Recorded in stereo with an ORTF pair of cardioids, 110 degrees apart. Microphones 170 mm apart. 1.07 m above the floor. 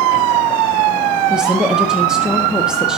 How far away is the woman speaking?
About 1.4 m.